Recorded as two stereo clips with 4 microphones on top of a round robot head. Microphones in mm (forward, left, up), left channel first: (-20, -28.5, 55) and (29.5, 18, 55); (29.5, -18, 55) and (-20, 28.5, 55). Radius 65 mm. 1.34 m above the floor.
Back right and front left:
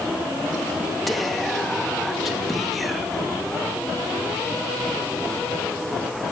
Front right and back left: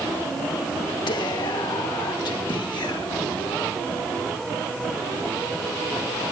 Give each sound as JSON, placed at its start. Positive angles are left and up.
{"t": 1.1, "sound": "whispering", "azimuth_deg": -45, "distance_m": 1.6}